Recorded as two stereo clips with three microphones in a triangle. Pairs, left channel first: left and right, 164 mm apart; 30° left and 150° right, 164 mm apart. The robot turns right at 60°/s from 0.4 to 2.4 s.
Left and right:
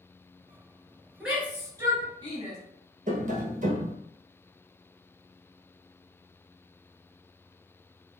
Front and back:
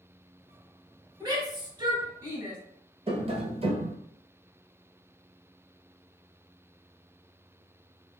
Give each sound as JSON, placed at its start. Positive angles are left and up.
{"t": 1.2, "sound": "a shout", "azimuth_deg": -175, "distance_m": 1.3}
{"t": 3.1, "sound": "tapping", "azimuth_deg": -110, "distance_m": 0.9}